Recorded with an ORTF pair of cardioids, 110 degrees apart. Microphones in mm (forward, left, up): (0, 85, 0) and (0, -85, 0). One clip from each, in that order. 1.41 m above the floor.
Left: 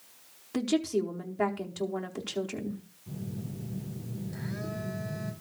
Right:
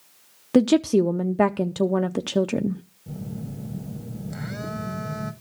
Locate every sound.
0.5 s a woman speaking: 70° right, 0.6 m
3.1 s a phone buzzing: 60° right, 1.7 m